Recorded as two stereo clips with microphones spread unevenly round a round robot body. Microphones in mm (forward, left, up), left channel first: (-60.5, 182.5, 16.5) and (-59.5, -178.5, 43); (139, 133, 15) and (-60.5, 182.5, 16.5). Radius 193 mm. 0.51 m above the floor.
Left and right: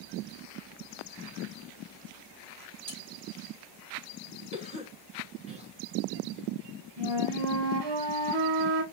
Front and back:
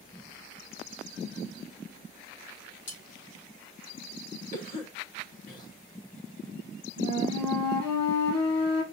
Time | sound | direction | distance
2.9 | cutlery clinking | 15° right | 3 m
4.5 | a cough | 20° right | 1.0 m
7.0 | a flute | 65° right | 1.4 m